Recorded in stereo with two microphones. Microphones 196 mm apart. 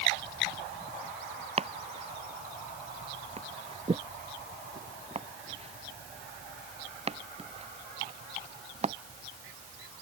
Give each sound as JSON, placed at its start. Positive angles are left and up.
{"t": 1.6, "sound": "chopping", "side_deg": -30}